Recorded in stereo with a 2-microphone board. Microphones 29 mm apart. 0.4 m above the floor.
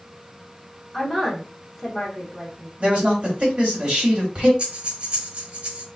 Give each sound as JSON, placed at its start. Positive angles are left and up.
{"t": 0.9, "sound": "a woman speaking", "side_deg": -5, "distance_m": 1.5}
{"t": 2.8, "sound": "a man speaking", "side_deg": -45, "distance_m": 1.9}
{"t": 4.6, "sound": "breathing", "side_deg": -40, "distance_m": 1.4}